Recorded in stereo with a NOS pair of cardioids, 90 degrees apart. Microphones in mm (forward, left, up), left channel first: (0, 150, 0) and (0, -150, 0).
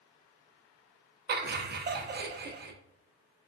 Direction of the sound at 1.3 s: 35° right.